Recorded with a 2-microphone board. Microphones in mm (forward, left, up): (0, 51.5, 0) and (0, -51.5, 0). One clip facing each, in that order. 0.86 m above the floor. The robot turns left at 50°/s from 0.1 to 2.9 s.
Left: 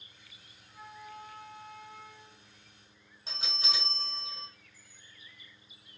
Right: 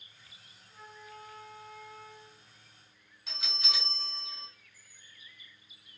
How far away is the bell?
About 1.5 m.